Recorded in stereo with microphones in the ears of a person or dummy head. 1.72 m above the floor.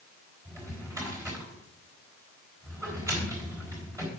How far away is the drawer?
About 3.5 m.